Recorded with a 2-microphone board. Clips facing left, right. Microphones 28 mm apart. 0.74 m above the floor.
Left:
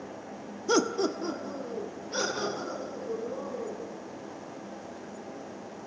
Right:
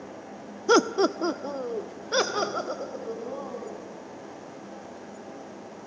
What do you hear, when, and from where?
0.7 s laughter: 25° right (ahead or behind), 0.9 m; by 4.0 s 65° right (ahead or behind), 4.5 m